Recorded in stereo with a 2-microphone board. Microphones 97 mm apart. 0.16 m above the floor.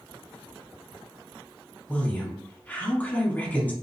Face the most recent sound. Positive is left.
turn(degrees=20)  # may be behind; listen again after turning